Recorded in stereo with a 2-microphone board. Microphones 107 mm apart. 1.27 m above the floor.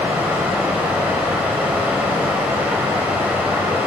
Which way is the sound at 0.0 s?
15° right (ahead or behind).